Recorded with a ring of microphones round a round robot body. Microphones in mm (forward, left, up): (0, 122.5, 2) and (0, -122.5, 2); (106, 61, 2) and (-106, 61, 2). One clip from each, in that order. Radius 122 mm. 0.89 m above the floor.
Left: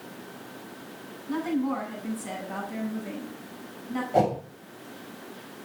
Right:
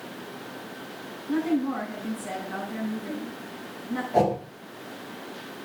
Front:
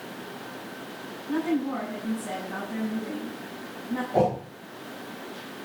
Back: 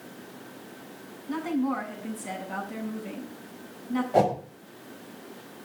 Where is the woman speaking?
160° left, 8 m.